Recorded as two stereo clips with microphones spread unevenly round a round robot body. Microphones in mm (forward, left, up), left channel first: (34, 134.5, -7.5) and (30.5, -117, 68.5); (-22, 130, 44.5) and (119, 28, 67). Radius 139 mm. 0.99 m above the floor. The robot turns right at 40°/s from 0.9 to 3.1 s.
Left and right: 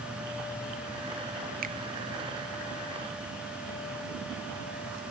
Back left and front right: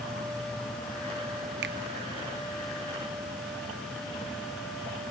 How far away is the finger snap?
About 0.9 m.